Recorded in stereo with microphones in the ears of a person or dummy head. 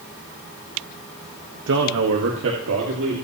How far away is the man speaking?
About 1.3 m.